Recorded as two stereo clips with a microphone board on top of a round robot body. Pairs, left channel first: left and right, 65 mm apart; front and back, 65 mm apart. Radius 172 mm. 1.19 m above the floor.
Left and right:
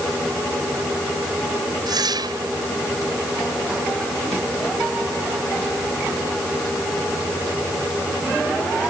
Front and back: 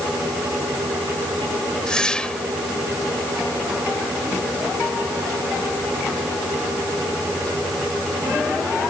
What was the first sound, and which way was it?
A whoosh, 80° right.